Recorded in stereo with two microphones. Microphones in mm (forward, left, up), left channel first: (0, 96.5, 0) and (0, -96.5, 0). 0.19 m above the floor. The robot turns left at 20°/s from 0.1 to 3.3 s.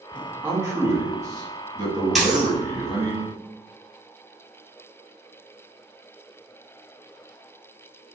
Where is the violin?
I don't hear a violin.